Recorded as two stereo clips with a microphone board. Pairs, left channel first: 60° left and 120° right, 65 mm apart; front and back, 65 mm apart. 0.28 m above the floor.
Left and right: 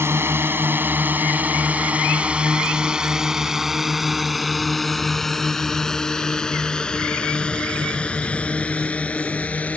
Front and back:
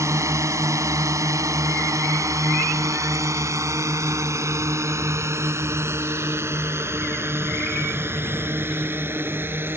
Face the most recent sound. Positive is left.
turn(degrees=125)